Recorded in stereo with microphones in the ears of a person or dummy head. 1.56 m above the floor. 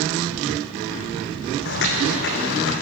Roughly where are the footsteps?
Left.